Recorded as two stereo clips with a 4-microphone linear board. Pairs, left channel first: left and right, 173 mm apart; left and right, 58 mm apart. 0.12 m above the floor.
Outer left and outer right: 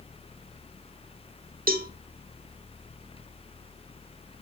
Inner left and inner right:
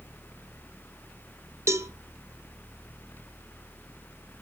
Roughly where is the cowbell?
Right.